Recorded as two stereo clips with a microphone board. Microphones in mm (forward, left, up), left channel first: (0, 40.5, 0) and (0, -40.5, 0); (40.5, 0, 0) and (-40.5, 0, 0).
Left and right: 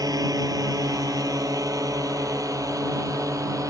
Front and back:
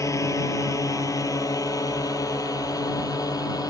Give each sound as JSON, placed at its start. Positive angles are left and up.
{"t": 0.0, "sound": "a drone", "azimuth_deg": -50}